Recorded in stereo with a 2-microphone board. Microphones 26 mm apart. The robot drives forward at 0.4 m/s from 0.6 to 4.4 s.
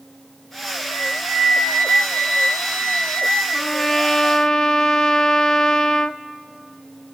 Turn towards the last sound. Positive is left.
turn(degrees=30)  # may be behind; listen again after turning